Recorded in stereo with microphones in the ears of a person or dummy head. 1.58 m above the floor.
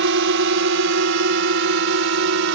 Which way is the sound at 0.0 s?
60° right (ahead or behind).